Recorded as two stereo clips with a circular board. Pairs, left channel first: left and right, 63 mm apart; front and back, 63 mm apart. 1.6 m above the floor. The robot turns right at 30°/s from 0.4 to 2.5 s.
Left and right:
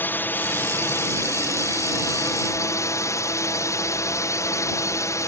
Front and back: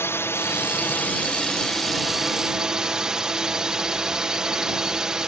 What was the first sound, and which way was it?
A drone, 40° left.